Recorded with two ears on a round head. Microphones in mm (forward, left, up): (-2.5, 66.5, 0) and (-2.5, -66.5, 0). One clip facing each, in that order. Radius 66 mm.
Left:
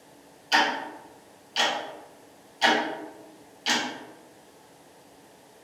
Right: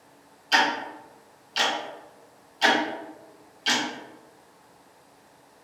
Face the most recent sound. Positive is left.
turn(degrees=0)  # may be behind; listen again after turning